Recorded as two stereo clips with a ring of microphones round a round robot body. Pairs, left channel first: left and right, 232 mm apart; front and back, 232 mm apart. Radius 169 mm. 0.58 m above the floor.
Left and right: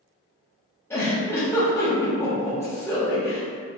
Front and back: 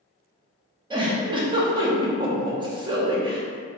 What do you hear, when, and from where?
0.9 s a giggle: 150° left, 0.8 m